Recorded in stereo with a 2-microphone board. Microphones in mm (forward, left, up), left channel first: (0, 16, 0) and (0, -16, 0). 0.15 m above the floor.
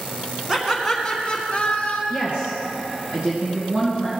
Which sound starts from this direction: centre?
Laughter, at 0.5 s.